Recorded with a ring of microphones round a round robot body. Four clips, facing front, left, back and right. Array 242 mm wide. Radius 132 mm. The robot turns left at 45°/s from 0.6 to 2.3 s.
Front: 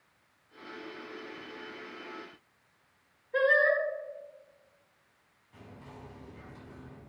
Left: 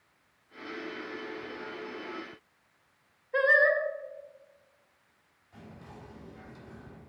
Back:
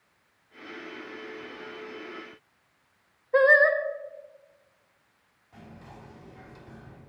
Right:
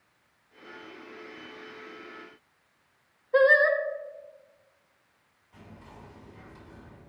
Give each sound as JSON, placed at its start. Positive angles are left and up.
{"t": 3.3, "sound": "singing", "azimuth_deg": -160, "distance_m": 0.9}
{"t": 5.5, "sound": "whispering", "azimuth_deg": 155, "distance_m": 4.0}